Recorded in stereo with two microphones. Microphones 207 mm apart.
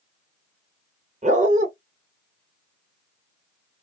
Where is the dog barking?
35° right (ahead or behind), 0.8 m.